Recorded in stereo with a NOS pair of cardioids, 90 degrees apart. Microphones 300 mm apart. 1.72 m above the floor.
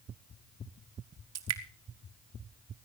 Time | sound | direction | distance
1.4 | dripping | 60° right | 2.0 m